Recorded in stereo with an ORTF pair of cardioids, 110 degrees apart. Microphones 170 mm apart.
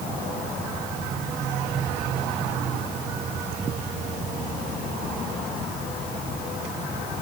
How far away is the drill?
I don't hear a drill.